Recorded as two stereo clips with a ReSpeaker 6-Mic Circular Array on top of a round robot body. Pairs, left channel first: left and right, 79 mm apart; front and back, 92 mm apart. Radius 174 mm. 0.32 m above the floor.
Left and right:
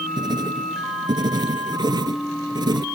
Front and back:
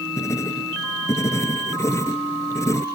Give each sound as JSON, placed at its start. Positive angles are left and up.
{"t": 0.2, "sound": "writing", "azimuth_deg": -60}